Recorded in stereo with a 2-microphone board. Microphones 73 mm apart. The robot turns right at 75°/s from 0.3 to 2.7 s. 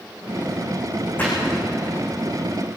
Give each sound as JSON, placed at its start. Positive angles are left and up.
{"t": 1.2, "sound": "a splash", "side_deg": 25, "distance_m": 10.0}